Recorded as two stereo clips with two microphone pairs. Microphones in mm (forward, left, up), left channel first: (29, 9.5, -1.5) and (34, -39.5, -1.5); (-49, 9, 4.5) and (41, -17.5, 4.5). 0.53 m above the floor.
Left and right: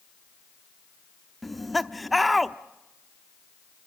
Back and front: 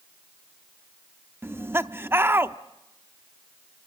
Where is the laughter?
Straight ahead, 0.7 m.